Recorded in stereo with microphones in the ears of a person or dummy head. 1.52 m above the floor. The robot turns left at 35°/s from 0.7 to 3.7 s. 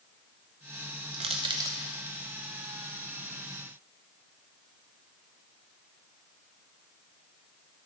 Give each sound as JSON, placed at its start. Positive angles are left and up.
{"t": 1.1, "sound": "crushing", "side_deg": -30, "distance_m": 0.5}